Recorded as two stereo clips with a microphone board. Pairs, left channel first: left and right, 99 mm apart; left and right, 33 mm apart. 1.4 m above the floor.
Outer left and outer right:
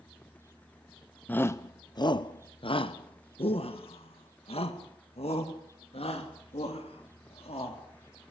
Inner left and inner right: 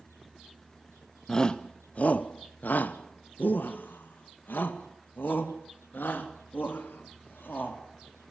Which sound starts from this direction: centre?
A shout, at 1.3 s.